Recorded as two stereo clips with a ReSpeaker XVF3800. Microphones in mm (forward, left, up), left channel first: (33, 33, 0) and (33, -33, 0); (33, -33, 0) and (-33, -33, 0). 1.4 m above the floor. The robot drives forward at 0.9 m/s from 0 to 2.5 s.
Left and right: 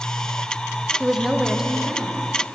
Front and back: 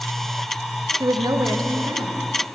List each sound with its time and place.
1.0 s a woman speaking: 170° right, 0.6 m; by 2.3 s 175° right, 1.7 m